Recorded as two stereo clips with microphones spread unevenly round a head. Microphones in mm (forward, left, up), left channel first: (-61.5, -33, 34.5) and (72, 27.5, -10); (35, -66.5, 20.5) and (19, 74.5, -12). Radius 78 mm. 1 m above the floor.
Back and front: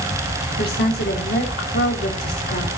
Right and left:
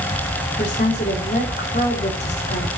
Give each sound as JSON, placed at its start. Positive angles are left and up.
{"t": 0.6, "sound": "a woman speaking", "azimuth_deg": -130, "distance_m": 3.5}